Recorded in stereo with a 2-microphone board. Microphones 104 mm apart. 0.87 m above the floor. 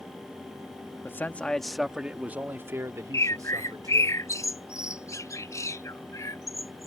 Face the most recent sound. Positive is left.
turn(degrees=30)  # may be behind; listen again after turning